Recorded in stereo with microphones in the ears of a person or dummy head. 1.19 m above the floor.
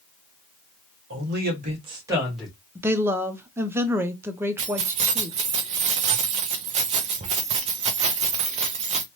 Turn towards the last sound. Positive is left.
turn(degrees=-35)  # may be behind; listen again after turning